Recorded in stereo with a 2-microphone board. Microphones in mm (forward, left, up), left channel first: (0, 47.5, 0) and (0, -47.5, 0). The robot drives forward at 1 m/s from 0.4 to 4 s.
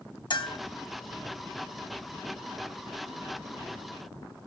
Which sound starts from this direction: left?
A bell, at 0.3 s.